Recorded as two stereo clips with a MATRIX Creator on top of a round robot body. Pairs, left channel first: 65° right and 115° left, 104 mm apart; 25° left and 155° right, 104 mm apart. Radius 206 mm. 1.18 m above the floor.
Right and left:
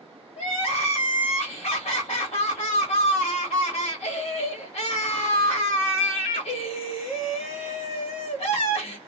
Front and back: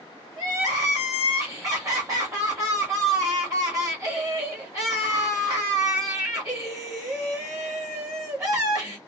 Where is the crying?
95° right, 0.9 m.